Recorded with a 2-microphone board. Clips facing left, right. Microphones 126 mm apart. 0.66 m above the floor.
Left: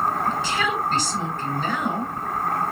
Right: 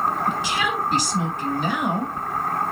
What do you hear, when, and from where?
0.3 s a woman speaking: 15° right (ahead or behind), 3 m